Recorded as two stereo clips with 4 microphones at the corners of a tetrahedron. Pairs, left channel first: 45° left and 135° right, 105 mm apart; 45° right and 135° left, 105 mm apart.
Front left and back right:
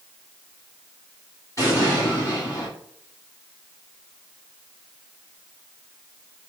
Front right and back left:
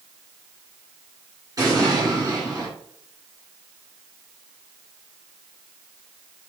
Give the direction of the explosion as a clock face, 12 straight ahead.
9 o'clock.